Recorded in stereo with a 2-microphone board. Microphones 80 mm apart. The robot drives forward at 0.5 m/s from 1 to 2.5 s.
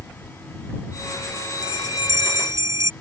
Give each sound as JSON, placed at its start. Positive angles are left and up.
{"t": 1.6, "sound": "a bell", "side_deg": -45}